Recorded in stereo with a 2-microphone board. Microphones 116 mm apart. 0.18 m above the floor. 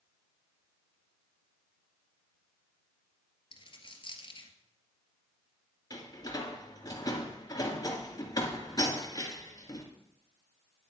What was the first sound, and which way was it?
A dropped coin, 50° left (ahead or behind).